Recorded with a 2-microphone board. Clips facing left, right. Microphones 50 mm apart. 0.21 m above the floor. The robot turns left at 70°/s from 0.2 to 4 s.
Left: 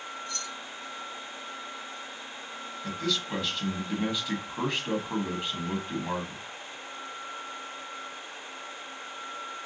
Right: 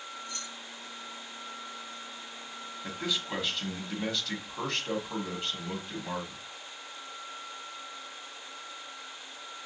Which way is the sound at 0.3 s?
20° right (ahead or behind).